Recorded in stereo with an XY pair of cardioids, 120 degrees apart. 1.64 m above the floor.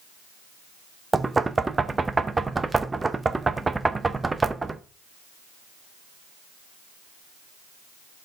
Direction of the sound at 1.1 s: 20° right.